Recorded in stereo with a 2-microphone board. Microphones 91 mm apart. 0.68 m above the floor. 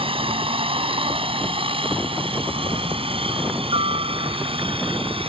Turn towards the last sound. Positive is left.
turn(degrees=-80)